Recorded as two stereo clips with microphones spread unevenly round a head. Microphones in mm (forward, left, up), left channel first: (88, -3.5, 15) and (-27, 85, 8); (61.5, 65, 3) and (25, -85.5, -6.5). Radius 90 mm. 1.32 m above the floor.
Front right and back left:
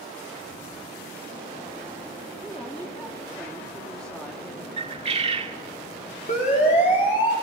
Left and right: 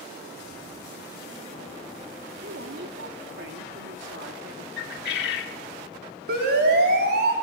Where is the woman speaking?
120° right, 3 m.